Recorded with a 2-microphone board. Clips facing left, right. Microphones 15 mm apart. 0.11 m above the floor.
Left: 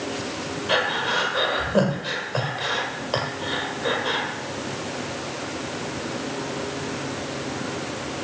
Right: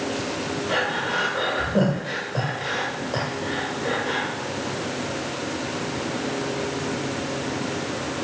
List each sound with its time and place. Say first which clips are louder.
0.7 s breathing: left 3 dB; 45° left (ahead or behind), 2.5 m